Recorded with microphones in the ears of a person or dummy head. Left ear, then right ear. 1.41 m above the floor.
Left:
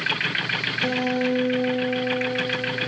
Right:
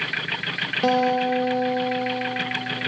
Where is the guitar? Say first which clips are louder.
Right 8 dB; 50° right (ahead or behind), 0.5 m.